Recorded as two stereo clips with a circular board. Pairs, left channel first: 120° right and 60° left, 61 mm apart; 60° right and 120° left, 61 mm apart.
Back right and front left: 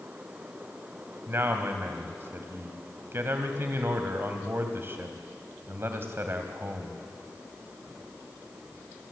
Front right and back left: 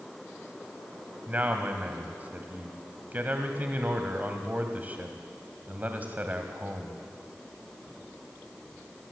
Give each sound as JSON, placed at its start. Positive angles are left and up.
{"t": 1.3, "sound": "a man speaking", "azimuth_deg": 70, "distance_m": 2.0}